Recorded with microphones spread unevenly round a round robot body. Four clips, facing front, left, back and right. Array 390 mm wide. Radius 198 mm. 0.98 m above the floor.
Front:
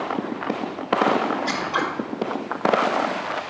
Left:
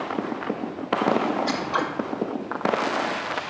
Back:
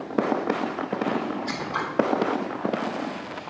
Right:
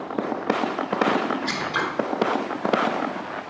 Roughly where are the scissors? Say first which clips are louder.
Left 1 dB, front 5 dB; ahead left.